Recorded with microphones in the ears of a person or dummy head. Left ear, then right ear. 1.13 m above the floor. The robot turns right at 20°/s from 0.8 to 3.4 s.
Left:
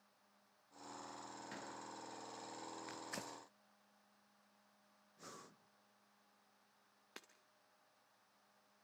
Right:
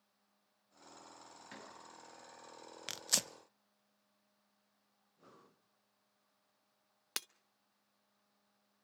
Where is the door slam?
5° right (ahead or behind), 7.5 m; by 1.8 s centre (ahead or behind), 7.5 m.